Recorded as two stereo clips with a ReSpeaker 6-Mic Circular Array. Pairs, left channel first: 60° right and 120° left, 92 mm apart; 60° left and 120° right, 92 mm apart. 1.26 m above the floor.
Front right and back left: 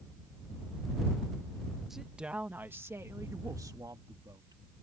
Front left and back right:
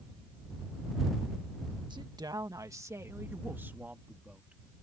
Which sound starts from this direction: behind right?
A woman speaking, at 1.9 s.